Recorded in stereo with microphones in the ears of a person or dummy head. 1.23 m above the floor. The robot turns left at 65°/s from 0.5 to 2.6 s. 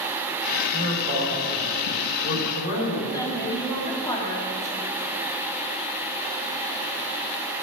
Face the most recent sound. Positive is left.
turn(degrees=20)  # may be behind; listen again after turning